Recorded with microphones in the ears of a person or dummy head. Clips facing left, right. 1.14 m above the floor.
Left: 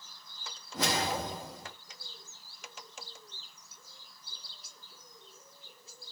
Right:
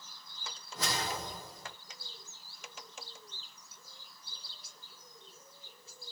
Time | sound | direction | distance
0.7 | a whoosh | 65° left (ahead or behind) | 1.0 m